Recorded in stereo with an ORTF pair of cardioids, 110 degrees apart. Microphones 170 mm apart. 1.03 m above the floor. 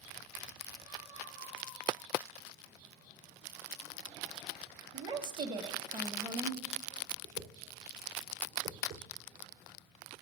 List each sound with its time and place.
4.9 s a woman speaking: 25° right, 0.8 m
7.2 s a whoosh: 55° right, 0.8 m